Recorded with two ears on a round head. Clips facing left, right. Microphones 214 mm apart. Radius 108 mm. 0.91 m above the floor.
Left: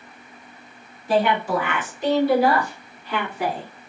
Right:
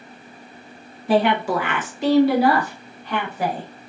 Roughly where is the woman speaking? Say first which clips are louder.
Right 2 dB; right.